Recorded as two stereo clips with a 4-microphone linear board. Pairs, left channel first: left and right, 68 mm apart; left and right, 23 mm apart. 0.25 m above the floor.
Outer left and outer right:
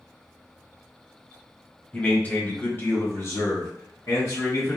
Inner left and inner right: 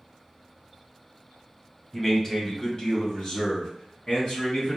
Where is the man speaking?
15° left (ahead or behind), 1.1 m; by 4.8 s 55° left (ahead or behind), 1.9 m.